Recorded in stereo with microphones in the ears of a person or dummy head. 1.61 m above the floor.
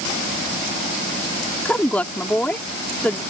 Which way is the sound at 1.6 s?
10° left (ahead or behind).